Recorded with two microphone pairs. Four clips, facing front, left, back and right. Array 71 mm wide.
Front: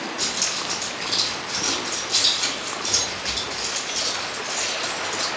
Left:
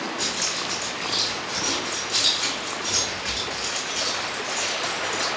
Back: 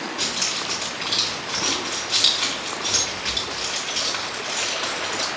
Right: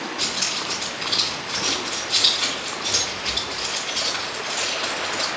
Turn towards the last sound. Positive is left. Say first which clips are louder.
# even, back 1 dB
turn(degrees=-175)